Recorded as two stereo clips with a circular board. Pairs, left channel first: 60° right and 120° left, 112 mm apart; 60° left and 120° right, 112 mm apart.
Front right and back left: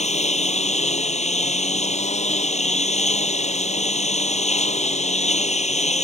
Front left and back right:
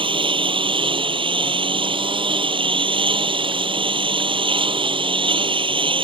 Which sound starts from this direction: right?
A lawn mower, at 0.0 s.